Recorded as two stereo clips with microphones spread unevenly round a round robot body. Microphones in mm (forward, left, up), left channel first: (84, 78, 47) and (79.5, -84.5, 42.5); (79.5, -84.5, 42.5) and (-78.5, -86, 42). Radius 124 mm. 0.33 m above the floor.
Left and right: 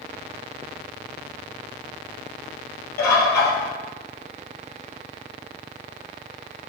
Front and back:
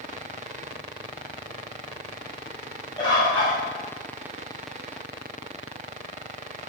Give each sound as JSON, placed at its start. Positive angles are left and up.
{"t": 3.0, "sound": "a bird", "azimuth_deg": 75, "distance_m": 2.5}